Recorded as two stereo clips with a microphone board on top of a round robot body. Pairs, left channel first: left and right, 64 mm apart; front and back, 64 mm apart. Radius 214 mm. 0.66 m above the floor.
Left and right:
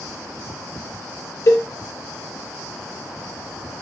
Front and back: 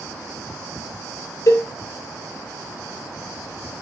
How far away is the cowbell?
About 2.5 m.